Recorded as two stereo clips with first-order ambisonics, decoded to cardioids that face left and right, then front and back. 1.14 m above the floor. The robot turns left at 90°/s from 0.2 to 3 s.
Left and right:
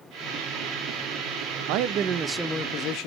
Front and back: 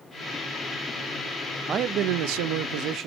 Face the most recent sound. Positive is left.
turn(degrees=130)